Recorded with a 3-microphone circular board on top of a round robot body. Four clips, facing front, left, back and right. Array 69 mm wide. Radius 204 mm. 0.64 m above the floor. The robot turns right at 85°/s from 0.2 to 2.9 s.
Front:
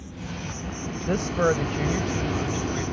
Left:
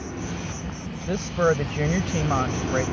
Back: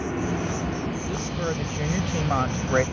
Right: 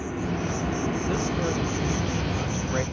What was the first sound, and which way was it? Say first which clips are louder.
An insect: right 4 dB, back 10 dB; 165° right.